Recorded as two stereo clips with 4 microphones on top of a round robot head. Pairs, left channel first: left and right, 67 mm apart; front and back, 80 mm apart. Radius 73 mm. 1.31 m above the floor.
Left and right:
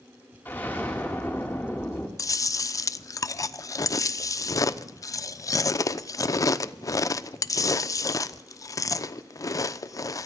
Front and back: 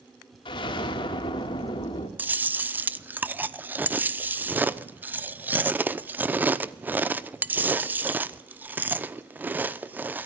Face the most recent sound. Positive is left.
turn(degrees=115)